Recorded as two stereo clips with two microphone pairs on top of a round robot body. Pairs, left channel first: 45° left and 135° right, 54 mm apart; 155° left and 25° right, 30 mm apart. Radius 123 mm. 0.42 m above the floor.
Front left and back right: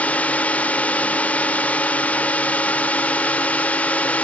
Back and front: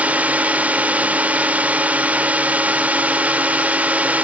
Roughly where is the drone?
Ahead.